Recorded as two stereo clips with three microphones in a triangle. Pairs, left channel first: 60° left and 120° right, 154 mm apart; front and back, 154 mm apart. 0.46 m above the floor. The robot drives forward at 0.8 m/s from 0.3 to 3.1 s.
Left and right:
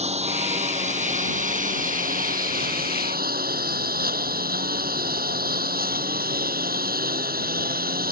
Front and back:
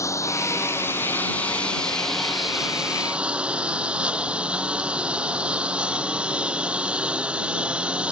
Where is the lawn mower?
70° right; by 8.1 s 95° right.